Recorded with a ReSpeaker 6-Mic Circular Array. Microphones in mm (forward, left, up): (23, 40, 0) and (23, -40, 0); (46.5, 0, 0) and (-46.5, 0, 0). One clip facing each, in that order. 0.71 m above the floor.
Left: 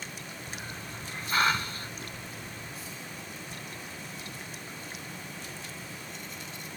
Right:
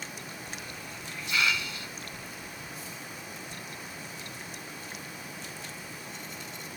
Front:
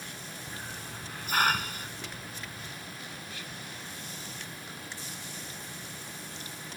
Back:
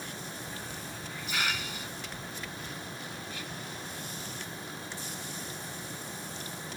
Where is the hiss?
40° left.